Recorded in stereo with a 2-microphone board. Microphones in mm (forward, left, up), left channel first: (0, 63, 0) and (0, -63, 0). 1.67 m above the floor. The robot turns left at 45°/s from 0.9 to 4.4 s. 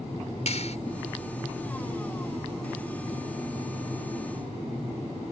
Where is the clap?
60° left (ahead or behind).